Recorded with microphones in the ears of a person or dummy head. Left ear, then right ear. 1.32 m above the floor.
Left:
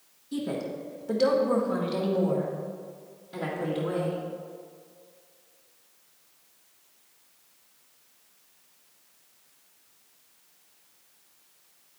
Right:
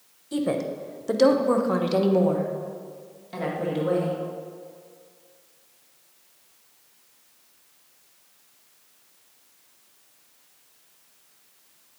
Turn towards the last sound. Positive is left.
turn(degrees=-35)  # may be behind; listen again after turning